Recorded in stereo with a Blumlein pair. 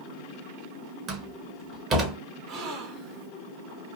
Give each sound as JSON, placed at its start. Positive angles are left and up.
{"t": 1.1, "sound": "a door slam", "azimuth_deg": -30, "distance_m": 1.2}
{"t": 2.5, "sound": "a gasp", "azimuth_deg": -35, "distance_m": 1.1}